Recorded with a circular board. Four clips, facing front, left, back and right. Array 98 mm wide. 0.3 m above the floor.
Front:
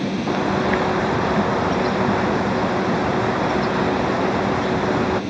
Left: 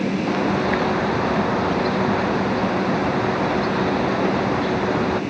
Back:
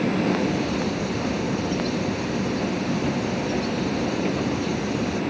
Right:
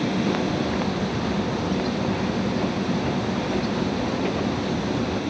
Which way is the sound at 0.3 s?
35° left.